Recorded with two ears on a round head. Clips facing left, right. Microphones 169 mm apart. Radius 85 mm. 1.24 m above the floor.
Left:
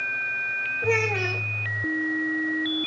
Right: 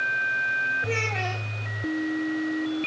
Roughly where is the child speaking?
Left.